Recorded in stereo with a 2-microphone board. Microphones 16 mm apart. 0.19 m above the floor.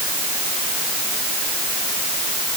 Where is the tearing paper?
I don't hear tearing paper.